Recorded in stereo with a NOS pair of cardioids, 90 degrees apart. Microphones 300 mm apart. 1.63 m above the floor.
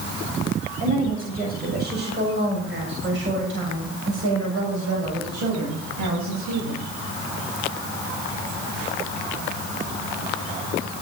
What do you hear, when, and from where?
0.8 s a woman speaking: 25° right, 7 m; by 6.8 s 65° right, 8 m